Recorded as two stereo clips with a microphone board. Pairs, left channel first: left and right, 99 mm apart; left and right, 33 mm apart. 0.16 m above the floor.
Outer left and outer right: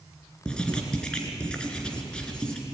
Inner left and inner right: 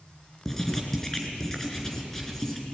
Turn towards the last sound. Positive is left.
turn(degrees=10)  # may be behind; listen again after turning